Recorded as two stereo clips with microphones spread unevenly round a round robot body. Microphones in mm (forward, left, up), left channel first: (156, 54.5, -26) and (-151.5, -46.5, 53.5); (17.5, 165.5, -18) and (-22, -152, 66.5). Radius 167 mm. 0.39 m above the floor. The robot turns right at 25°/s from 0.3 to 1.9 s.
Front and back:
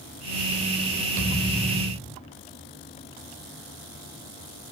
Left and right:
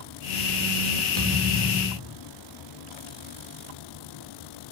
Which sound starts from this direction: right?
A thud, at 1.2 s.